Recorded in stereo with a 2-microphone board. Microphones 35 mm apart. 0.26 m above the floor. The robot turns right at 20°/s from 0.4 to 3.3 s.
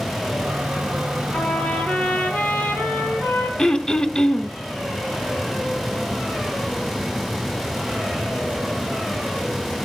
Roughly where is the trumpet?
Ahead left.